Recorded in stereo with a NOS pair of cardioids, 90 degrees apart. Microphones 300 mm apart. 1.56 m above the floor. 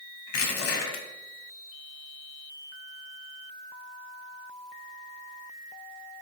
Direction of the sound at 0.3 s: 55° left.